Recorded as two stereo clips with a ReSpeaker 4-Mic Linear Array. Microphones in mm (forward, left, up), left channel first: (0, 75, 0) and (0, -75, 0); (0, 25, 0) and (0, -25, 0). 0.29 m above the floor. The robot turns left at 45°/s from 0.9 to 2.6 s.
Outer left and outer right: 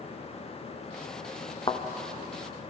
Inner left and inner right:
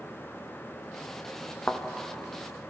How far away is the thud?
About 2.5 m.